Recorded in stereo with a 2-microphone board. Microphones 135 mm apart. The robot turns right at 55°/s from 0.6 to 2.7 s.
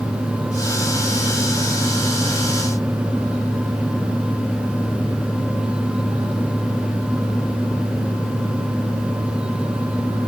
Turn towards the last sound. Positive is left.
No sound to turn to.